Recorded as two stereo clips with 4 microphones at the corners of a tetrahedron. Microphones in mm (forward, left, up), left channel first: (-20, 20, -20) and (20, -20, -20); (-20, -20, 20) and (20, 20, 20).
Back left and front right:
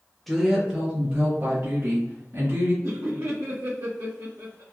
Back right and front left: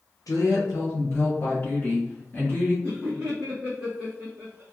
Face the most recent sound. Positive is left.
turn(degrees=-15)